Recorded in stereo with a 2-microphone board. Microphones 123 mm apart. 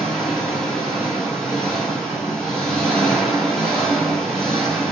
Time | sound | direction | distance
0.0 | an engine running | 5° left (ahead or behind) | 0.9 m